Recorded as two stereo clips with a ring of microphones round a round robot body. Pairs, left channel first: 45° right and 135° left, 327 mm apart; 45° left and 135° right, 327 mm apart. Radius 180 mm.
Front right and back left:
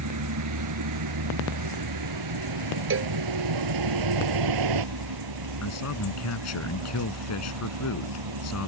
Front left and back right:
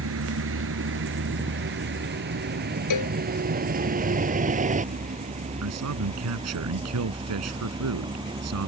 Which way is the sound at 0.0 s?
175° left.